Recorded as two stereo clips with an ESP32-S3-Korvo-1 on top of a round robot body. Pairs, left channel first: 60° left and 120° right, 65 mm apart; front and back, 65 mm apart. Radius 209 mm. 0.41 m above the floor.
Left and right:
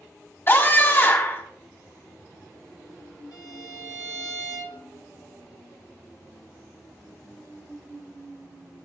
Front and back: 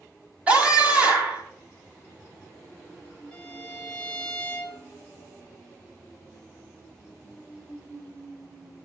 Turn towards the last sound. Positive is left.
turn(degrees=80)